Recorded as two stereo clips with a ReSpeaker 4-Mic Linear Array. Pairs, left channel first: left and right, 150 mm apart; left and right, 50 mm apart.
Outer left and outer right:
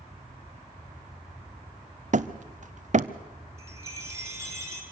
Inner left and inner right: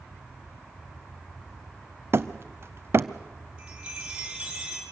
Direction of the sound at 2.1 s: 55° right (ahead or behind).